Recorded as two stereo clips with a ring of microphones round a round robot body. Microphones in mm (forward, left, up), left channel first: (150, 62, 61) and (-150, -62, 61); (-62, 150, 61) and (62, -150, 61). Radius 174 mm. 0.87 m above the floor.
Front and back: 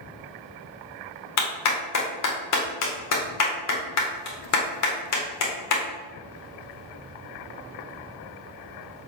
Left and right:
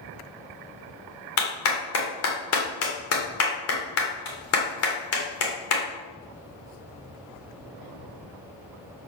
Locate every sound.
1.4 s a clap: 65° left, 2.0 m